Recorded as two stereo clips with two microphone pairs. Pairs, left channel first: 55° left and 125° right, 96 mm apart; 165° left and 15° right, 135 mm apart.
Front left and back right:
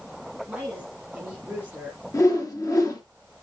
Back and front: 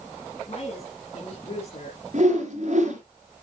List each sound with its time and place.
0.5 s a woman speaking: 165° left, 2 m
2.1 s a whoosh: 5° left, 3 m